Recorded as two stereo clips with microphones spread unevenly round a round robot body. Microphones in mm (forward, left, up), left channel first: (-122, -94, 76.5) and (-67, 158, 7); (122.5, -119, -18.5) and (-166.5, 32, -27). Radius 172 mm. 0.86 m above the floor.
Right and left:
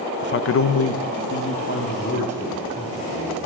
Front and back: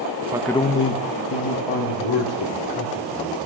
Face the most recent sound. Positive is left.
turn(degrees=-35)